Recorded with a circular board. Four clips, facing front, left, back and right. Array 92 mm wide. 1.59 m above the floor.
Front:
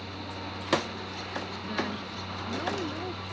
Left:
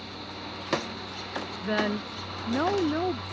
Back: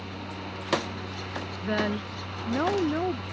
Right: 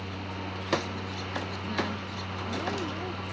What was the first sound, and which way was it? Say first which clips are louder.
A woman speaking: left 8 dB, back 8 dB; 130° left.